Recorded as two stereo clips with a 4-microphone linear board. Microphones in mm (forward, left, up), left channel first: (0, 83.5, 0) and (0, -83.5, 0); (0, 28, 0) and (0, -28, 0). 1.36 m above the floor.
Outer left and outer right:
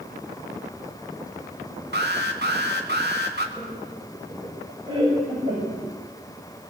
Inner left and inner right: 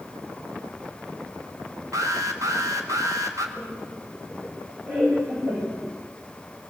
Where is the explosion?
No explosion in this recording.